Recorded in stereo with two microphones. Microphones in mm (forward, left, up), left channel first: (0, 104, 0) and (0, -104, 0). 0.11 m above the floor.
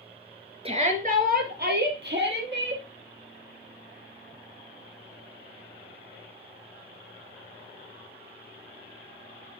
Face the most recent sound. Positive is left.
turn(degrees=-60)  # may be behind; listen again after turning